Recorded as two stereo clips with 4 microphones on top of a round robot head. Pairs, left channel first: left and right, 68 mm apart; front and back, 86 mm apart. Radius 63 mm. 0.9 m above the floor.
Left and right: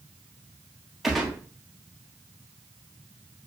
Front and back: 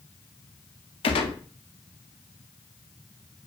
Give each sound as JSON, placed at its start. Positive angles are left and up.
{"t": 1.0, "sound": "a gunshot", "azimuth_deg": 0, "distance_m": 1.3}